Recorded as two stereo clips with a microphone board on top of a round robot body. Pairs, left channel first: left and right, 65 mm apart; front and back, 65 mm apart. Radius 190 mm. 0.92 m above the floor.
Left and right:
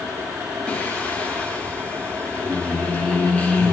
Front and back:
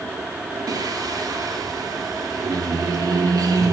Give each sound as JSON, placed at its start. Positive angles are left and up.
{"t": 0.7, "sound": "singing", "azimuth_deg": 165, "distance_m": 3.0}